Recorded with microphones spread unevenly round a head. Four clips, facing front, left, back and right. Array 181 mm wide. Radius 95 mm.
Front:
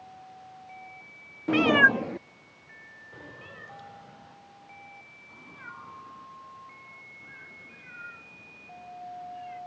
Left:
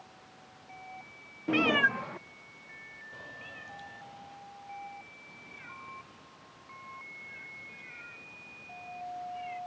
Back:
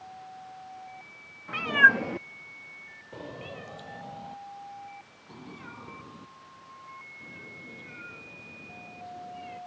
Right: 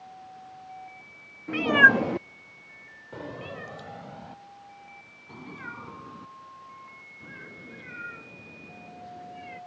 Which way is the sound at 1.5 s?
25° left.